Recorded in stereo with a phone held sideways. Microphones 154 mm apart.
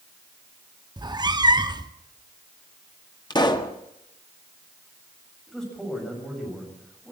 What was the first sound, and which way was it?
A cat meowing, 30° right (ahead or behind).